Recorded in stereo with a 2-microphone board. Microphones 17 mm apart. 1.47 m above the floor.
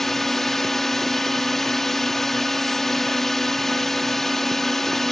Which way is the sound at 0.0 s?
20° left (ahead or behind).